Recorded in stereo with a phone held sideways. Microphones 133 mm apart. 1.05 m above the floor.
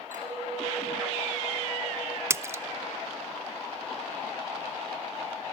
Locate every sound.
0.1 s a clink: 85° right, 4.5 m
2.3 s a splash: 20° right (ahead or behind), 0.5 m